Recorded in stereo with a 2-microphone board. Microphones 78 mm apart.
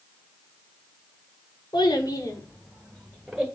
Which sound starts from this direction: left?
A child speaking, at 1.7 s.